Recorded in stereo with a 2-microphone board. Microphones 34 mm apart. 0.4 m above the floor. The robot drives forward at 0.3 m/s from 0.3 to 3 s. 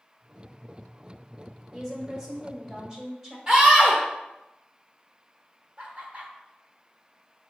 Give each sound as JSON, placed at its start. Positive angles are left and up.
{"t": 1.7, "sound": "a woman speaking", "side_deg": -15, "distance_m": 1.1}
{"t": 3.5, "sound": "a scream", "side_deg": -25, "distance_m": 0.8}
{"t": 5.8, "sound": "laughter", "side_deg": -40, "distance_m": 1.2}